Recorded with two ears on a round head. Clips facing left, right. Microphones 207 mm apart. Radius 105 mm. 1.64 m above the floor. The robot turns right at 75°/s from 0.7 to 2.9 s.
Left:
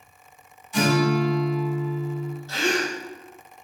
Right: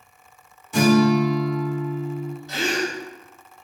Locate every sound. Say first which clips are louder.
0.7 s a guitar: right 5 dB; 55° right, 1.2 m; by 2.3 s 65° left, 1.2 m
2.5 s a gasp: even; 15° right (ahead or behind), 1.0 m; by 3.0 s 20° right (ahead or behind), 1.0 m